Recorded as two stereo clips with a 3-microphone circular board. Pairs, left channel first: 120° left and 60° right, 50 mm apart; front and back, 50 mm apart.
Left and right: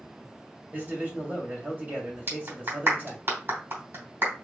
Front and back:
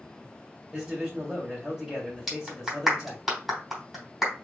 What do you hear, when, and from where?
0.7 s a man speaking: 90° right, 1.9 m
2.3 s a clap: 95° right, 2.5 m